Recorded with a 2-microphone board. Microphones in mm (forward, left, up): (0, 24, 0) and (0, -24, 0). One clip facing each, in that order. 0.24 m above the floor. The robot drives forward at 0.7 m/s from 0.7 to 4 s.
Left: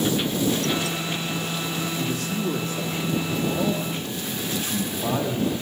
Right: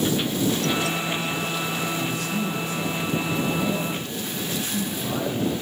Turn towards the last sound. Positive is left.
turn(degrees=40)  # may be behind; listen again after turning